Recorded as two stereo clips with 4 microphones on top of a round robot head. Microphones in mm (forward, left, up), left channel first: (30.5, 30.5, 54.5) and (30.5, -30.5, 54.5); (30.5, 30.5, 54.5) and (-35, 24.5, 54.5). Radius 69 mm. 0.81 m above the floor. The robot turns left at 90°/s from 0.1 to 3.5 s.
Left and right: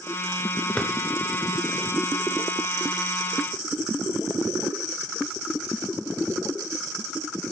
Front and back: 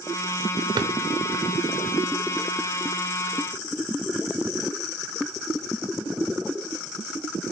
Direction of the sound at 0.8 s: 170° left.